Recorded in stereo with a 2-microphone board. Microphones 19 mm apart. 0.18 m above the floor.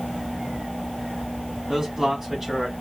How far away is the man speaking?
About 1.7 m.